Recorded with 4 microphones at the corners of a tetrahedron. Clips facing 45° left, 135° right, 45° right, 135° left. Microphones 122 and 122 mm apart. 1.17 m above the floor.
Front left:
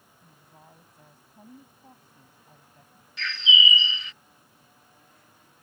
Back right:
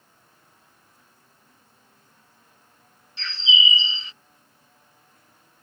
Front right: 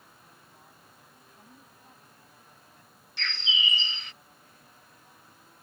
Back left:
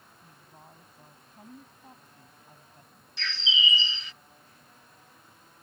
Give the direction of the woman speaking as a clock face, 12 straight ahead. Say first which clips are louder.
Front left 5 dB, back left 3 dB; 9 o'clock.